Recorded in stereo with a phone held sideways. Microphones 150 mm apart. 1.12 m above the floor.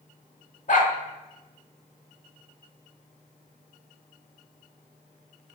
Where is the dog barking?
60° left (ahead or behind), 1.2 m.